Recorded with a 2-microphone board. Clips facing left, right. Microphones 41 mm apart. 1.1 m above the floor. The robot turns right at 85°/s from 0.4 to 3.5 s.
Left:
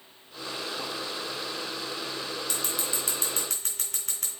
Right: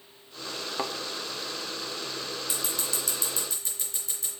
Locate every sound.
0.8 s a thud: 65° right (ahead or behind), 0.9 m
2.5 s scissors: 15° right (ahead or behind), 3.5 m; by 4.3 s 65° left (ahead or behind), 3.5 m